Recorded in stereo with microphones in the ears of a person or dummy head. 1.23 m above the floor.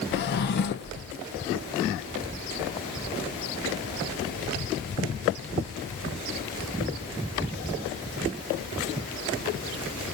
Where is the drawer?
50° left (ahead or behind), 0.7 m.